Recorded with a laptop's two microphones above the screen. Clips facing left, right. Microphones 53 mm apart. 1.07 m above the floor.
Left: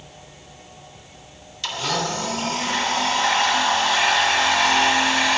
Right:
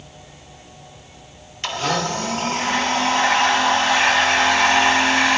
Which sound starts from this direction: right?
A blender, at 1.6 s.